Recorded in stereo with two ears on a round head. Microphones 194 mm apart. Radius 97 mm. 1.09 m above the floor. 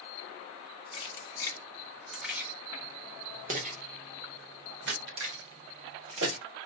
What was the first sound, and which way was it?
Keys jangling, 25° left (ahead or behind).